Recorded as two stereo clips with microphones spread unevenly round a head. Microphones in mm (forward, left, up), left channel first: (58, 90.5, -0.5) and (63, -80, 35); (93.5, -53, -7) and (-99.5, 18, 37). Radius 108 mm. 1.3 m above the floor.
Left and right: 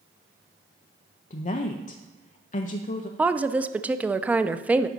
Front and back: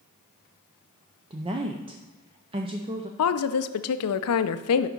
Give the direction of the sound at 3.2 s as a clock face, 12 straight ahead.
12 o'clock.